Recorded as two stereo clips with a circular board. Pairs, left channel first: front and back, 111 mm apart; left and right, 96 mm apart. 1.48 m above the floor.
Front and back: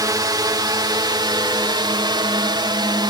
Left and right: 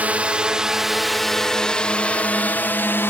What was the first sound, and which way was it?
A drone, 155° right.